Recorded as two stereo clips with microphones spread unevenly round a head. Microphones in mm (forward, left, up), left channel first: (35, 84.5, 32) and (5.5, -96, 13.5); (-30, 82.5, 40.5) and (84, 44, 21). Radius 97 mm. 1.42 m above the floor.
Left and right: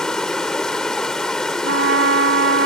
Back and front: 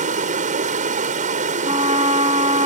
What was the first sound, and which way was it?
Running water, 5° right.